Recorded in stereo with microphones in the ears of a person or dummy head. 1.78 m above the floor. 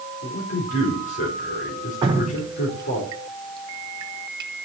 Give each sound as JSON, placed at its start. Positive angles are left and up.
{"t": 0.2, "sound": "a man speaking", "side_deg": 50, "distance_m": 4.5}
{"t": 2.0, "sound": "dripping", "side_deg": -30, "distance_m": 1.2}